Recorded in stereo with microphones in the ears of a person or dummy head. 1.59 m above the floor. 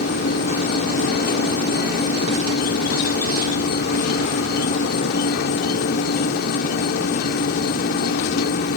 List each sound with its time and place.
0.0 s an insect: 60° left (ahead or behind)